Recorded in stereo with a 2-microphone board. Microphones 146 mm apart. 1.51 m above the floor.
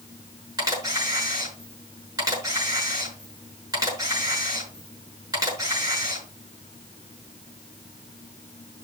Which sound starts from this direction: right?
A camera shutter, at 0.6 s.